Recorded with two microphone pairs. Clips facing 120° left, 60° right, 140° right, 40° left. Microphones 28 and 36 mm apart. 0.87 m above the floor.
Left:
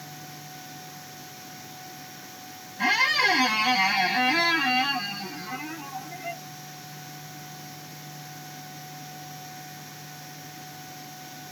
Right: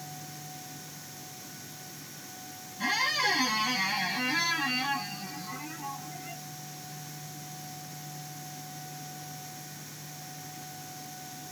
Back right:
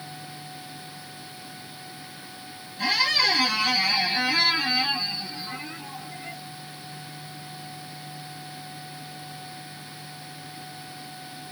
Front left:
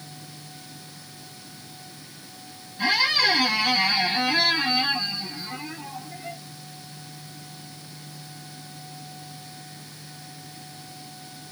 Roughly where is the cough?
No cough in this recording.